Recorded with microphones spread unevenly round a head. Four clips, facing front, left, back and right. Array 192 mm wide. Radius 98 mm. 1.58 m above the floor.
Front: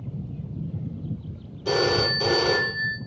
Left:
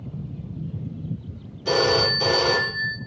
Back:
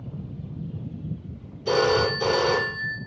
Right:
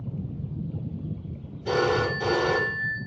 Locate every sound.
1.6 s a phone ringing: 20° left, 1.4 m